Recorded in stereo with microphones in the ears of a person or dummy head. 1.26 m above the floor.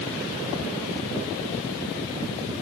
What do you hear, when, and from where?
Only background noise.